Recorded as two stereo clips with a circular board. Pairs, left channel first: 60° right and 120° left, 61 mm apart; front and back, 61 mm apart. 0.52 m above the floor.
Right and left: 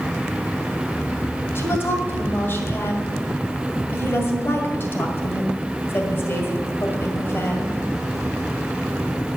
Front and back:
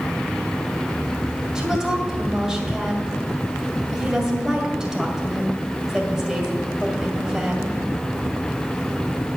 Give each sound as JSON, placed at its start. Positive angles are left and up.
{"t": 1.6, "sound": "a woman speaking", "azimuth_deg": -100, "distance_m": 2.0}